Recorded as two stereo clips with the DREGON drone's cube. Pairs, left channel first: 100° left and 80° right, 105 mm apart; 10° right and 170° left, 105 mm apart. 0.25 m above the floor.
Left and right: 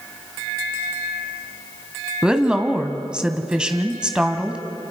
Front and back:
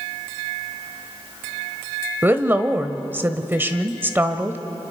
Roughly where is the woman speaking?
Behind right.